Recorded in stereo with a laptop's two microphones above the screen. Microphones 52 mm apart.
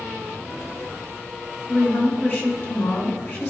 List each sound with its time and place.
1.7 s a woman speaking: 45° left (ahead or behind), 2 m